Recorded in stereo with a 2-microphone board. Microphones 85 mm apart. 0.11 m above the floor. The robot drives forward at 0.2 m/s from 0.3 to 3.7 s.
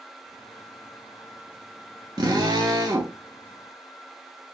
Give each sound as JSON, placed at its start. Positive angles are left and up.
{"t": 2.2, "sound": "a drill", "side_deg": -55, "distance_m": 0.7}